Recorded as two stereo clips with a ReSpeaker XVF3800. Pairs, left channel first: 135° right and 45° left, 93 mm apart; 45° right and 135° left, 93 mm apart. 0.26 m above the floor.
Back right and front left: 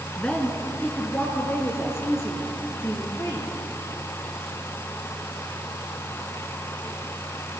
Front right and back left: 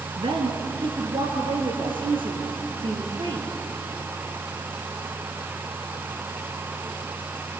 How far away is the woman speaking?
About 2.5 m.